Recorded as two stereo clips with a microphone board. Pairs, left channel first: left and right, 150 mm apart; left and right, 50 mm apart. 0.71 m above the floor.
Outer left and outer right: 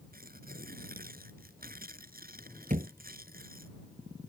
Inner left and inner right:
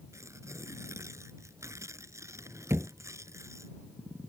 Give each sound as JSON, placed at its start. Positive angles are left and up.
{"t": 0.1, "sound": "tearing paper", "side_deg": -75}
{"t": 2.7, "sound": "a thud", "side_deg": -60}